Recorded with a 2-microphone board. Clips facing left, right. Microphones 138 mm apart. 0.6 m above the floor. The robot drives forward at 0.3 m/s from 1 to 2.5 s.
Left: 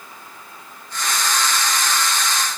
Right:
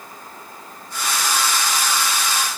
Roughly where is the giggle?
No giggle in this recording.